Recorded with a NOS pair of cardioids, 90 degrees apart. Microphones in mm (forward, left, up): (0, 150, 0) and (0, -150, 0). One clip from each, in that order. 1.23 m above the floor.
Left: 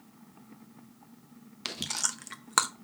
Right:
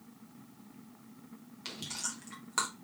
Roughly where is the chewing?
Ahead left.